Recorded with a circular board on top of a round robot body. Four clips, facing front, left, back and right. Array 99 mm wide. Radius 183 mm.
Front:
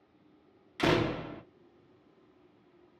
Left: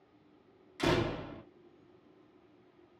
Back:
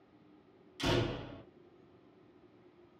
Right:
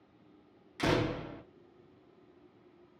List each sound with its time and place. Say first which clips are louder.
0.8 s a door slam: even, front 6 dB; 5° right, 0.8 m